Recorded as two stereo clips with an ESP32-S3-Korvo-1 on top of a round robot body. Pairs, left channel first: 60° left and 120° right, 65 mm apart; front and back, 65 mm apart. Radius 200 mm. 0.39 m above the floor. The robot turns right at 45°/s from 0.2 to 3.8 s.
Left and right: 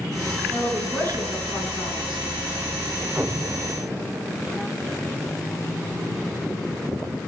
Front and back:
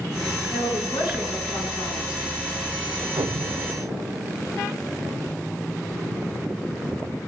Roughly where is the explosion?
Behind.